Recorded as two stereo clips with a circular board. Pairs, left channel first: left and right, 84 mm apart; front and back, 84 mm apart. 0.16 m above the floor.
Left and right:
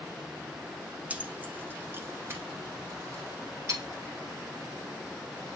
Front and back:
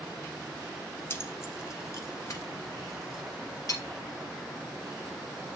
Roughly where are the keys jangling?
Ahead right.